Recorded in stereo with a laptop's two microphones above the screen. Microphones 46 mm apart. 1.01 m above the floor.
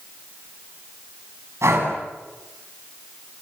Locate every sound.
1.6 s breathing: 80° right, 7 m